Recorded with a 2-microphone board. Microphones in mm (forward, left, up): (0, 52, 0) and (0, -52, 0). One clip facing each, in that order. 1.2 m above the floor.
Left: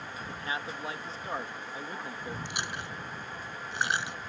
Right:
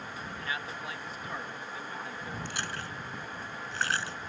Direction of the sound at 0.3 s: 30° left (ahead or behind).